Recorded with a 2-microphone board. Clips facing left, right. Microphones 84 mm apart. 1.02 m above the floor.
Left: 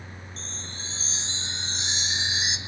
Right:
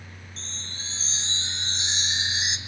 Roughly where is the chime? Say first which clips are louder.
Left 1 dB; centre.